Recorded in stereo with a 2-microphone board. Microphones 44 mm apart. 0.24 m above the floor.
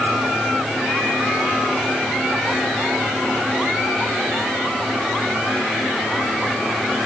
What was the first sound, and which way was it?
Only background noise.